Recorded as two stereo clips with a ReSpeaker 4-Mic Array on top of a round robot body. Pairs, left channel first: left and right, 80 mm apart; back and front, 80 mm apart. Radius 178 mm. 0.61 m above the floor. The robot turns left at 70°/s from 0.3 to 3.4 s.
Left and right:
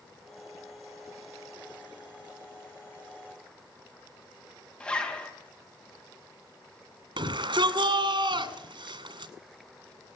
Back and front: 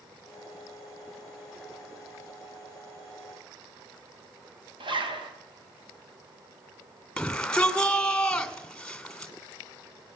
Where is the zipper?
15° left, 3.5 m.